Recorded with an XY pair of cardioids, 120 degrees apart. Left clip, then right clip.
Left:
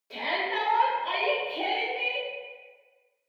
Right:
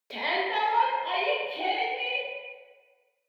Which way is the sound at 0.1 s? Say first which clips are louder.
Right 1 dB; 45° right.